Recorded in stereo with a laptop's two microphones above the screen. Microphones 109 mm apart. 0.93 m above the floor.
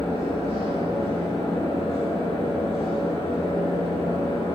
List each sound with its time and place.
0.0 s a fan: 55° left (ahead or behind), 1.6 m